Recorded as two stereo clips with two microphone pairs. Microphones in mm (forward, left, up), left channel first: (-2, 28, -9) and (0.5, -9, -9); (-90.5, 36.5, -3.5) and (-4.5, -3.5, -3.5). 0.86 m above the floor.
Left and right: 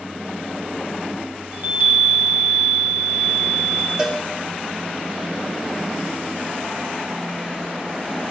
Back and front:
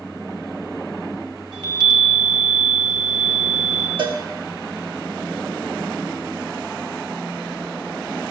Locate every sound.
1.5 s a chime: 65° right, 1.5 m
4.0 s a cowbell: 25° right, 1.9 m